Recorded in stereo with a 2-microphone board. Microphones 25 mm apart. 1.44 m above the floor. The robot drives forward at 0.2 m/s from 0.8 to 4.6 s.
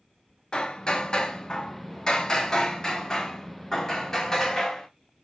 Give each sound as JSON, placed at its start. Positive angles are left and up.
{"t": 0.5, "sound": "hammering", "side_deg": 35, "distance_m": 0.8}